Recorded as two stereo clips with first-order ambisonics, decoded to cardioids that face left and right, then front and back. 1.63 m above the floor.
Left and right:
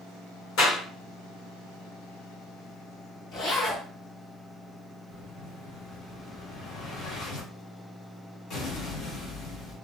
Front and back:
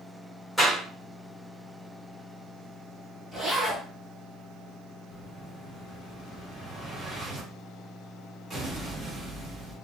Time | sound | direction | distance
0.6 | a clap | 85° left | 1.3 m
3.3 | a zipper | 85° left | 1.8 m
5.1 | an explosion | 115° left | 1.0 m